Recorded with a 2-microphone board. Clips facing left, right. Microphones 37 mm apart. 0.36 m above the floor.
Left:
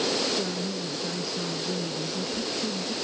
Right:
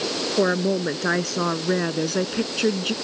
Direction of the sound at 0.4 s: 70° right (ahead or behind).